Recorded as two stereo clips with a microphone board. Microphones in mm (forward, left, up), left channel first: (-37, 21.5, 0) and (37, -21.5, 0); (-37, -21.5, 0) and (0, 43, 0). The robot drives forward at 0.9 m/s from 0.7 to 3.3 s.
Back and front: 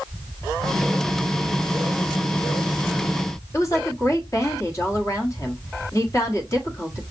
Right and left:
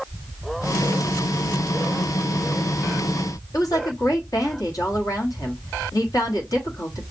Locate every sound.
3.5 s a woman speaking: 155° right, 1.2 m